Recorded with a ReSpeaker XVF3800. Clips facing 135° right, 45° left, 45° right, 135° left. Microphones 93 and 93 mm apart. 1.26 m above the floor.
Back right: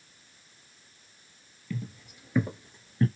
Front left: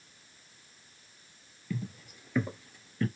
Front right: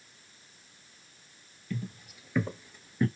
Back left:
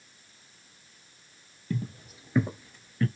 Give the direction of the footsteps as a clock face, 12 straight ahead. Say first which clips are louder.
Even, back left 4 dB; 8 o'clock.